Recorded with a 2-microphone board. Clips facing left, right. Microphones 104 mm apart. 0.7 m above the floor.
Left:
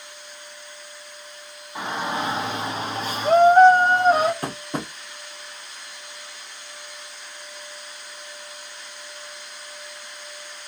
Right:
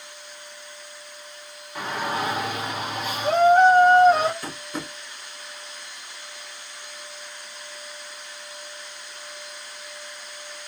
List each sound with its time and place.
1.8 s a shout: 20° left (ahead or behind), 1.5 m; by 4.3 s 45° left (ahead or behind), 1.7 m
4.4 s tapping: 60° left (ahead or behind), 0.6 m